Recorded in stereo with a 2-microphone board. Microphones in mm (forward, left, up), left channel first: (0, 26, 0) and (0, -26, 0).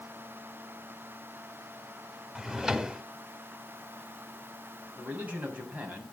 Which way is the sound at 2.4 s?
10° right (ahead or behind).